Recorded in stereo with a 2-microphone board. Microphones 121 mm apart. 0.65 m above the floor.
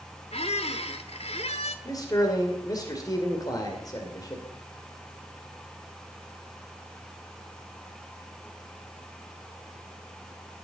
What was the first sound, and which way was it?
A squeak, 60° left (ahead or behind).